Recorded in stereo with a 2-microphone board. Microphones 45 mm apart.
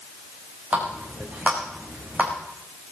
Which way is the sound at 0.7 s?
25° right (ahead or behind).